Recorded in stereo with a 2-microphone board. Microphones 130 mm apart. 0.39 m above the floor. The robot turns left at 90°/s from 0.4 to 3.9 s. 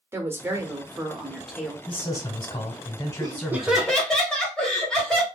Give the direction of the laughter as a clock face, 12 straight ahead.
4 o'clock.